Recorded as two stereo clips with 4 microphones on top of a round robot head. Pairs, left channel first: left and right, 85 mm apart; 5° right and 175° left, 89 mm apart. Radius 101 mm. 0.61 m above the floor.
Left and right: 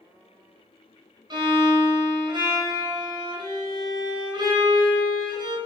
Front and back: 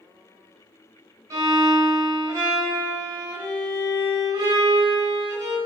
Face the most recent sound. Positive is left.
turn(degrees=-125)